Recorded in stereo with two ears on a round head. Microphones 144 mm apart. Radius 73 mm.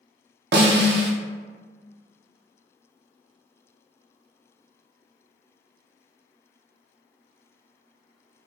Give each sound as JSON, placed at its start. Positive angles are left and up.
{"t": 0.5, "sound": "a snare drum", "side_deg": -65, "distance_m": 0.5}